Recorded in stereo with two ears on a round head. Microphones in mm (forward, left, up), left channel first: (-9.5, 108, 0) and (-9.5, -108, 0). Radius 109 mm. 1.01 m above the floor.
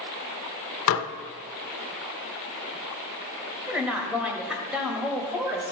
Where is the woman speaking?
5° right (ahead or behind), 1.5 m.